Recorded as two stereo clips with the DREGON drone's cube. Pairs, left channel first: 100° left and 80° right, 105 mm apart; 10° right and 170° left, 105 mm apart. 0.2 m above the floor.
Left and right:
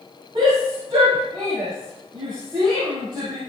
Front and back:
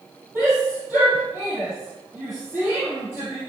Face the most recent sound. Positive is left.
turn(degrees=-125)